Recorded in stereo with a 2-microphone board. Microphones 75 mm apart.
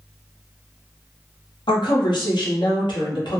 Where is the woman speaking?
85° left, 1.1 m.